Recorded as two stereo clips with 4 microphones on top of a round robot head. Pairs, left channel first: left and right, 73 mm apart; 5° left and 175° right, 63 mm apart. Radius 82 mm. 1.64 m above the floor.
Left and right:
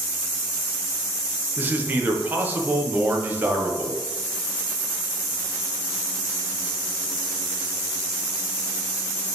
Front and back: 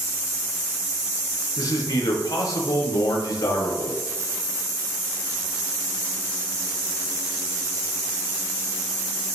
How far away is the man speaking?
About 1.4 m.